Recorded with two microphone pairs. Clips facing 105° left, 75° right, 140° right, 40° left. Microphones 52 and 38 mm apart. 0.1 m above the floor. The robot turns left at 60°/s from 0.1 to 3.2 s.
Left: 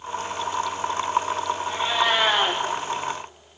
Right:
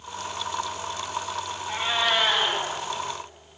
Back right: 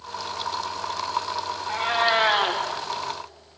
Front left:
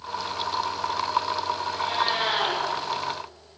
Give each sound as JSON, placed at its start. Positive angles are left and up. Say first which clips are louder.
{"t": 1.7, "sound": "a cat meowing", "louder": "left 1 dB, back right 6 dB", "azimuth_deg": -145, "distance_m": 4.0}